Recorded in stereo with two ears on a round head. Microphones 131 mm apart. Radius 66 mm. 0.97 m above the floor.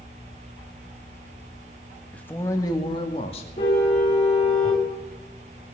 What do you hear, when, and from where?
2.1 s a man speaking: 10° left (ahead or behind), 1.5 m; by 3.5 s 45° left (ahead or behind), 2.5 m
3.6 s a car horn: 45° left (ahead or behind), 4 m